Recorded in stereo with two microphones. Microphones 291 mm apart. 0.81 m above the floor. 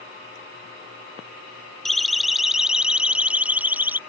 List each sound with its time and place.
1.9 s a siren: centre (ahead or behind); by 4.0 s 5° right (ahead or behind)